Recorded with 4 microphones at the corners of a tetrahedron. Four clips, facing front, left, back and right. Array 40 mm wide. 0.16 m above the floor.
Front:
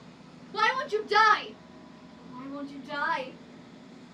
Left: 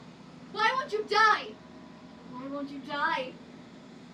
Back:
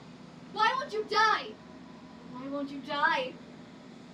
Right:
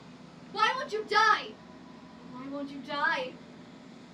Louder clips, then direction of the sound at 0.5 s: Left 1 dB, front 2 dB; straight ahead.